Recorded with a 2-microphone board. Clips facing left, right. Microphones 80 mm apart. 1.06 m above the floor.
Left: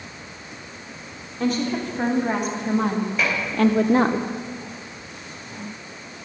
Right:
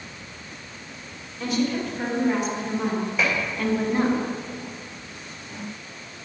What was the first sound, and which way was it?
A woman speaking, 40° left (ahead or behind).